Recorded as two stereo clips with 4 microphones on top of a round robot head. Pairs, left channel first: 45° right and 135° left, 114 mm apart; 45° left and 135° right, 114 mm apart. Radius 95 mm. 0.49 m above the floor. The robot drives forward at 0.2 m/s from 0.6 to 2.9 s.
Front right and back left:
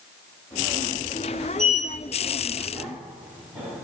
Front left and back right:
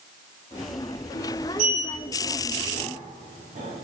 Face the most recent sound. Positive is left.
turn(degrees=-145)